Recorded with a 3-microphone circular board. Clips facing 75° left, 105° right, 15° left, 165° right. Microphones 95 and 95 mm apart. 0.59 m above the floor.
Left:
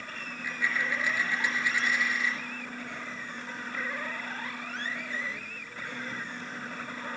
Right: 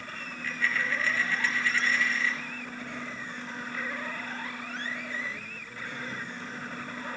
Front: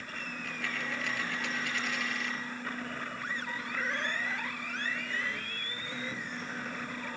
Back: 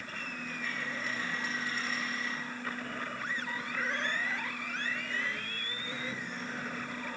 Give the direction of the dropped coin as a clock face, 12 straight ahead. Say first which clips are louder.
Right 1 dB, front 2 dB; 12 o'clock.